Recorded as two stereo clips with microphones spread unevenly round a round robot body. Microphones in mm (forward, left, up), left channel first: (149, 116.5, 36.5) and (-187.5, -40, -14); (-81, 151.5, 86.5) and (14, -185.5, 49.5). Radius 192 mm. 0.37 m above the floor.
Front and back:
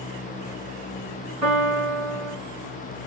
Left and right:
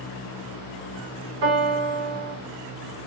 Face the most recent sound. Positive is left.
turn(degrees=-75)